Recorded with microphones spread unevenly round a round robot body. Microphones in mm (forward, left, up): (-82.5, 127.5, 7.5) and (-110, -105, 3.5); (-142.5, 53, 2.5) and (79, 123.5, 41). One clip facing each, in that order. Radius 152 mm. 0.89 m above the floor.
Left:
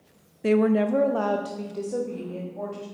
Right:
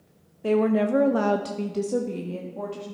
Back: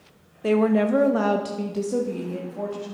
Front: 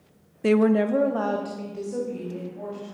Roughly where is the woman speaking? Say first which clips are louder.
Left 1 dB, even; ahead left.